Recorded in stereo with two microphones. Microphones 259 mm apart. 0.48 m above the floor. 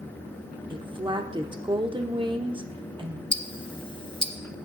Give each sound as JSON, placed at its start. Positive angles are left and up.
{"t": 0.7, "sound": "a woman speaking", "side_deg": -20, "distance_m": 0.7}
{"t": 3.3, "sound": "ticking", "side_deg": 20, "distance_m": 0.5}